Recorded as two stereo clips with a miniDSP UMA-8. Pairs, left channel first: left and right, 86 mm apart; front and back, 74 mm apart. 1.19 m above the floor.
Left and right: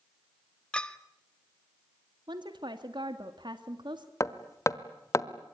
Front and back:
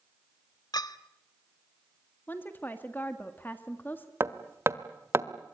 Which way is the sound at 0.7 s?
15° left.